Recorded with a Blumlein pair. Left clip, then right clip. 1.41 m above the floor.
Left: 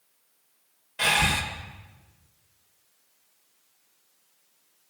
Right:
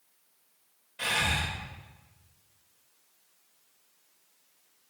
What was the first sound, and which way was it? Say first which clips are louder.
Breathing: left 5 dB; 30° left.